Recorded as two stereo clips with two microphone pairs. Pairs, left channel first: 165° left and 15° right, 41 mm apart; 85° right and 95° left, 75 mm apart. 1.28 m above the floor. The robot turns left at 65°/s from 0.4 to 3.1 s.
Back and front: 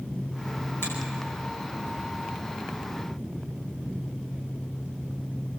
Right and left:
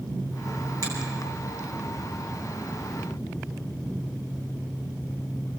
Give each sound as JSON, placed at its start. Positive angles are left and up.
{"t": 0.8, "sound": "a finger snap", "azimuth_deg": 140, "distance_m": 9.0}